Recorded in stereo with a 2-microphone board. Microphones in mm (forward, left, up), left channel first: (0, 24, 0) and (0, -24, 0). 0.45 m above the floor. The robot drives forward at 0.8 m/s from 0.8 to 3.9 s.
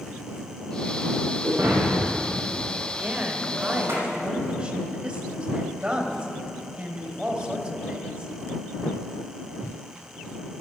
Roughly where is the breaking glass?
Right.